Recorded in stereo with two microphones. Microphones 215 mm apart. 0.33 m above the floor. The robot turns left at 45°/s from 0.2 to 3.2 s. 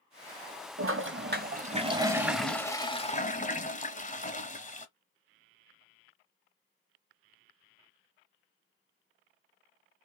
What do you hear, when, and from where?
0.8 s a toilet flushing: 110° right, 0.8 m; by 4.9 s 145° left, 0.8 m